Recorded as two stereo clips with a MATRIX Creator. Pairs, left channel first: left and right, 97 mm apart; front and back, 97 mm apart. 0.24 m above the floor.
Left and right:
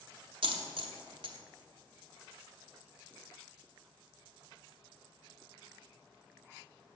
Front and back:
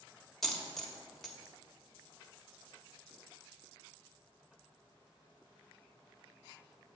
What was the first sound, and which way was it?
A dropped coin, 85° right.